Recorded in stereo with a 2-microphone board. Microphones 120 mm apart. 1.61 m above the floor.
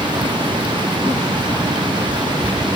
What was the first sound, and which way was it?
Only background noise.